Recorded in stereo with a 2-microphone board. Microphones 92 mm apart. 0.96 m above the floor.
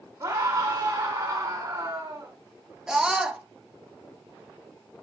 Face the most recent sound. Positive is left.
turn(degrees=-5)  # may be behind; listen again after turning